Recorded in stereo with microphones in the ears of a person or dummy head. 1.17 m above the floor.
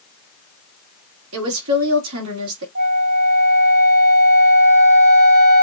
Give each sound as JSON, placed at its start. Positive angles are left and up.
{"t": 1.3, "sound": "a woman speaking", "side_deg": -75, "distance_m": 2.5}
{"t": 2.8, "sound": "a flute", "side_deg": -70, "distance_m": 4.0}